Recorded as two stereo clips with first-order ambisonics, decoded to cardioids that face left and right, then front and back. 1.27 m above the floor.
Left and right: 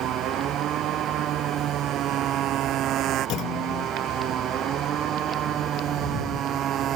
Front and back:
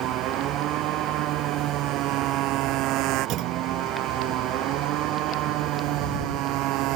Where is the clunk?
135° left.